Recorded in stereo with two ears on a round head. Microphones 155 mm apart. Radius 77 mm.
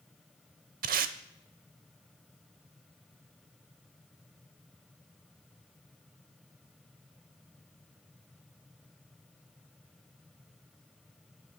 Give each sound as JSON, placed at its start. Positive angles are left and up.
{"t": 0.8, "sound": "tape being pulled", "side_deg": -55, "distance_m": 0.7}